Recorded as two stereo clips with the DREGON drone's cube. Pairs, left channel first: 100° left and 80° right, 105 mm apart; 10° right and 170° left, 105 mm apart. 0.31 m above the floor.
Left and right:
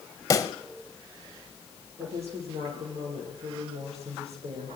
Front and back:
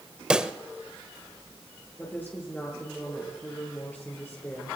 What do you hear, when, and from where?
0.3 s a pop: 95° left, 0.9 m
2.0 s a woman speaking: 85° right, 8.5 m